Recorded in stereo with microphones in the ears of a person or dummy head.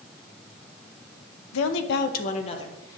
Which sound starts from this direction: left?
A woman speaking, at 1.5 s.